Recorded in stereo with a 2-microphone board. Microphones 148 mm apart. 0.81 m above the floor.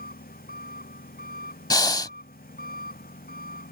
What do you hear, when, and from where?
0.0 s an engine running: 80° left
1.7 s breathing: 30° left (ahead or behind)